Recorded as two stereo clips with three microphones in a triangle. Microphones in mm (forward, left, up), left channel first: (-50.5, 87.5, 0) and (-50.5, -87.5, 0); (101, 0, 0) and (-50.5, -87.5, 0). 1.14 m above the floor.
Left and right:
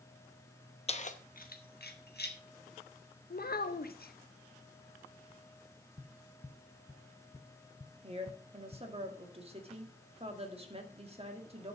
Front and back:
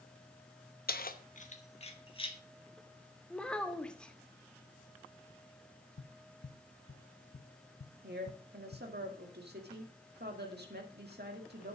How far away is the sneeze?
I don't hear a sneeze.